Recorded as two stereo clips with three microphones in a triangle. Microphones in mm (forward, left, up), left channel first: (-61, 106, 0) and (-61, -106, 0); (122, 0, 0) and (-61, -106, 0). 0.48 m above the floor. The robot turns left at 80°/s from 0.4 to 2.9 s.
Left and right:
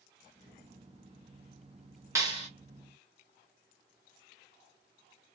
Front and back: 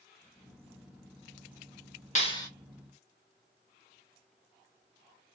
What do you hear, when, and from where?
2.1 s a clap: 15° right, 1.3 m; by 2.5 s 45° right, 1.3 m